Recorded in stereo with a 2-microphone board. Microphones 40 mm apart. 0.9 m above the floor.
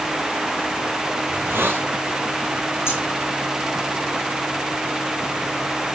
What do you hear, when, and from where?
1.3 s a hiss: 70° right (ahead or behind), 3.5 m
2.9 s scissors: 85° left, 5 m